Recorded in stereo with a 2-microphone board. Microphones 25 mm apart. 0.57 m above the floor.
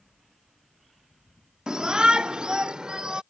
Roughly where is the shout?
Right.